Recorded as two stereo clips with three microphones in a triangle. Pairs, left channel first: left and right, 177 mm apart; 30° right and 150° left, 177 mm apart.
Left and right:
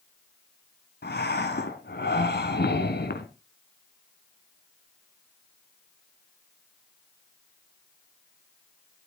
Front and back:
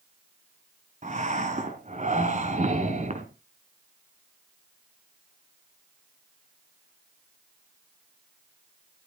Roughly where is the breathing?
Left.